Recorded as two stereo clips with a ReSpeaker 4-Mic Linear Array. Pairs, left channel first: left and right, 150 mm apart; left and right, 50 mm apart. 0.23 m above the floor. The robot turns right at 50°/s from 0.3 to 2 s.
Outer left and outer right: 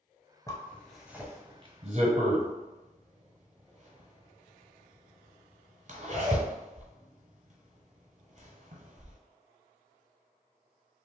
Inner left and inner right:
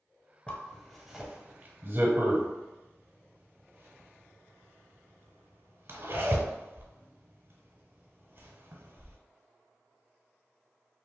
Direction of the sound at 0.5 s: 20° left (ahead or behind).